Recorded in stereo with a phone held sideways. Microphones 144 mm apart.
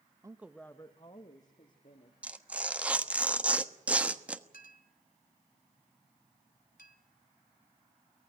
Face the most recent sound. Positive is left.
turn(degrees=85)